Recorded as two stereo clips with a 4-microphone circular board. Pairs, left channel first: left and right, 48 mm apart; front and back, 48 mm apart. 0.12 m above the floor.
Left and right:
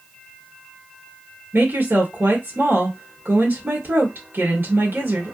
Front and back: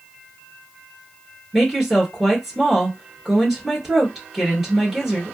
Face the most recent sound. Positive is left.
turn(degrees=-95)